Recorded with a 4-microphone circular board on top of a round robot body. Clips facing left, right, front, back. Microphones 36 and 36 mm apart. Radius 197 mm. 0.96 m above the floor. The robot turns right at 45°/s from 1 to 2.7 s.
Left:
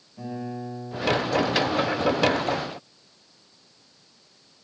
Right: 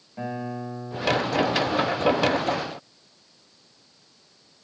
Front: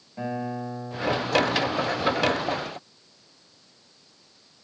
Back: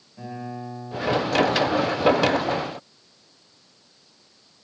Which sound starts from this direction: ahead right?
A guitar, at 0.2 s.